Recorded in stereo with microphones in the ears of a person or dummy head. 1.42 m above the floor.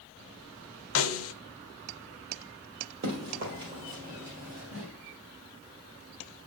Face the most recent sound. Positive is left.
turn(degrees=-20)  # may be behind; listen again after turning